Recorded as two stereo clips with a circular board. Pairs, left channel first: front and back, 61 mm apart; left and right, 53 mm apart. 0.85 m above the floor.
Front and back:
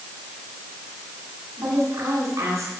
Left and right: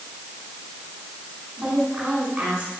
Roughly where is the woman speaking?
Behind right.